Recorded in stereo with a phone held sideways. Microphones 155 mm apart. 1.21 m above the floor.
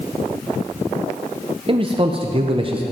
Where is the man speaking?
35° right (ahead or behind), 0.8 m.